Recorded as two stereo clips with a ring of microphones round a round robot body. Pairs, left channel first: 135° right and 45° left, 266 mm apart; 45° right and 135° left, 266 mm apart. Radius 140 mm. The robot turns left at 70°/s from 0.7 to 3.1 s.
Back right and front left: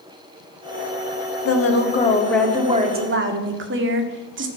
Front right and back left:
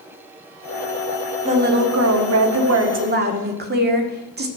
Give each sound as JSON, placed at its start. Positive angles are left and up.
{"t": 1.4, "sound": "a woman speaking", "azimuth_deg": -160, "distance_m": 1.8}